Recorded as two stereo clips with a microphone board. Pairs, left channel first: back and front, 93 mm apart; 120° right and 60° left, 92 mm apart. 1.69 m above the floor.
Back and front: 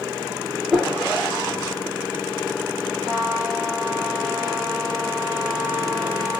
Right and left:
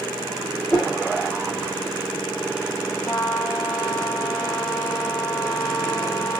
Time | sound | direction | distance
0.7 | a whoosh | 75° right | 1.6 m
3.0 | a trumpet | 45° right | 1.8 m